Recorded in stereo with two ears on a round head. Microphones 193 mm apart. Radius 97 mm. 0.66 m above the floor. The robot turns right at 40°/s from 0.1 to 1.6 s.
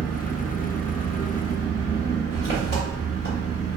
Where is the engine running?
15° right, 1.0 m; by 3.8 s 45° left, 1.0 m.